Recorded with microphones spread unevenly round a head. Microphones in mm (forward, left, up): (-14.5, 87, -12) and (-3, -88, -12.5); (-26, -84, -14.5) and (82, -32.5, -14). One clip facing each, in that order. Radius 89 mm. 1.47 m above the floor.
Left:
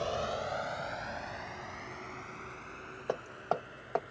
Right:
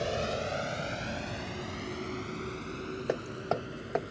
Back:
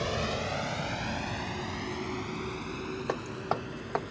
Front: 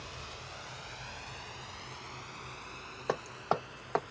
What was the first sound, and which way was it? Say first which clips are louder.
A vehicle: right 2 dB, back 16 dB; 150° right.